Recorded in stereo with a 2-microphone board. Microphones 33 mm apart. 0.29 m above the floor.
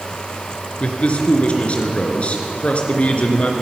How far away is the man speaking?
About 4 m.